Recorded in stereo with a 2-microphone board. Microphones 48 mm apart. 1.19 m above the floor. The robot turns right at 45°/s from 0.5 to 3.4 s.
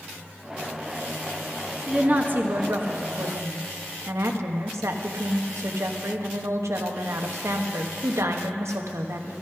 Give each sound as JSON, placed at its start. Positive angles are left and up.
{"t": 1.9, "sound": "a woman speaking", "azimuth_deg": -155, "distance_m": 1.1}